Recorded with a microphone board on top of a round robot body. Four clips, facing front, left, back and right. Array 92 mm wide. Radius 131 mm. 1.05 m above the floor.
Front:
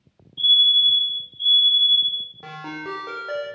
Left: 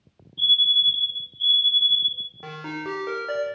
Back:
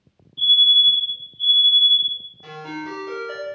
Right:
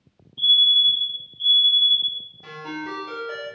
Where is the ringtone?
50° left, 0.6 m.